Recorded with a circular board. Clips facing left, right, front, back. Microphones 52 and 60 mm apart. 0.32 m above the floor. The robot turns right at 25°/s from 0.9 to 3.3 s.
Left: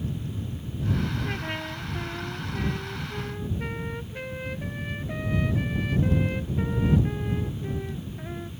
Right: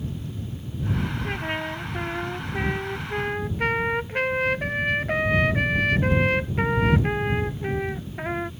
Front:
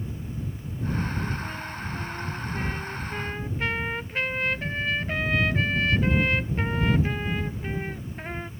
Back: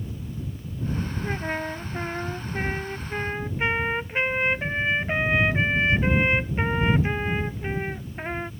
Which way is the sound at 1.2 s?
160° right.